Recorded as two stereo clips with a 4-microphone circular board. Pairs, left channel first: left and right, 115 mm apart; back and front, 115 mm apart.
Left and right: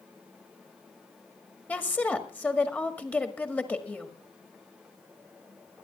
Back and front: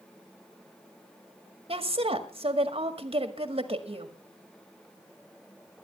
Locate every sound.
1.7 s a woman speaking: 15° left, 1.8 m